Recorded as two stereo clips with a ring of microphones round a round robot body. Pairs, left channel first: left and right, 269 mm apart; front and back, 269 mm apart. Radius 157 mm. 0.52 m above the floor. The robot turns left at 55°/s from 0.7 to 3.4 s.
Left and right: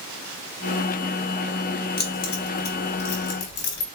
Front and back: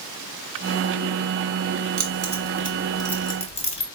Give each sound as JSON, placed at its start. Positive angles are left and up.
{"t": 2.0, "sound": "keys jangling", "azimuth_deg": 145, "distance_m": 1.1}